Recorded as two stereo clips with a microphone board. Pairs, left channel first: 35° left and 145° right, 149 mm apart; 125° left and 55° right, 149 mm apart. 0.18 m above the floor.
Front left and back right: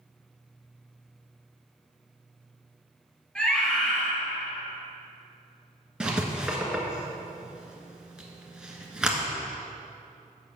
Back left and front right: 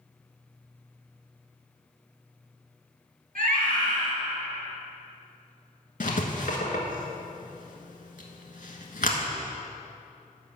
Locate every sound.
3.4 s a scream: 50° right, 3 m
6.0 s writing: 130° left, 1.4 m